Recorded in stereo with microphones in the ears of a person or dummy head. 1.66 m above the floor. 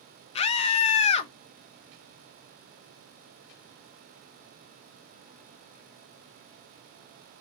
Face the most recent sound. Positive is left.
turn(degrees=35)  # may be behind; listen again after turning